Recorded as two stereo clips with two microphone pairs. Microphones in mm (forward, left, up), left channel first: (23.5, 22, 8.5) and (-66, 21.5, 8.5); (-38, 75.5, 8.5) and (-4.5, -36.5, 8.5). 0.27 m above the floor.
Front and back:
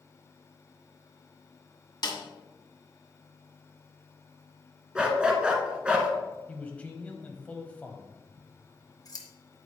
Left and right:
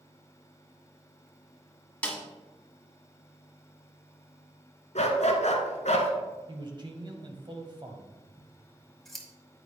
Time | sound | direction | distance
2.0 | a snare drum | 30° left | 1.5 m
5.0 | a dog barking | 105° left | 1.3 m
6.5 | a man speaking | 65° right | 1.2 m
8.4 | scissors | 20° left | 1.2 m